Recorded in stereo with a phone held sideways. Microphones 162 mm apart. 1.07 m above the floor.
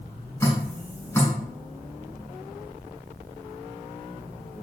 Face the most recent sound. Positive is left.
turn(degrees=20)  # may be behind; listen again after turning